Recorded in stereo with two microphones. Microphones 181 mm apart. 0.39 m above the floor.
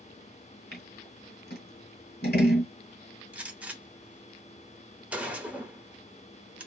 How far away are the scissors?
About 1.3 m.